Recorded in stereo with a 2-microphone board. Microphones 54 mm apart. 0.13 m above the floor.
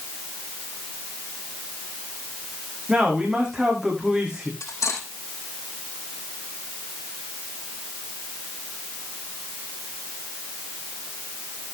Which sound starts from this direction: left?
Cutlery clinking, at 4.6 s.